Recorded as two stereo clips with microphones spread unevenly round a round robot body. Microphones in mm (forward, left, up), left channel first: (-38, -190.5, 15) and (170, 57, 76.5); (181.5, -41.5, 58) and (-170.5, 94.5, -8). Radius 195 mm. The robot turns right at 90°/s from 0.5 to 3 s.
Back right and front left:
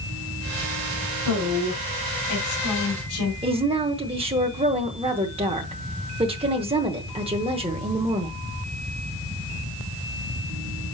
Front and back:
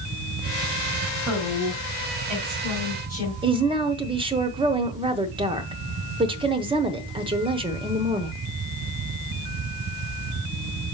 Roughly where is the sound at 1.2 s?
Left.